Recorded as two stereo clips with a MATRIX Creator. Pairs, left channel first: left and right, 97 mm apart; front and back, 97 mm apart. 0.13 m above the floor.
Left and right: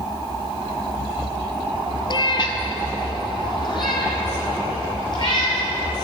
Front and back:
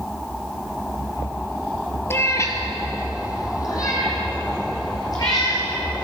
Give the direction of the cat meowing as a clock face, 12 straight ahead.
10 o'clock.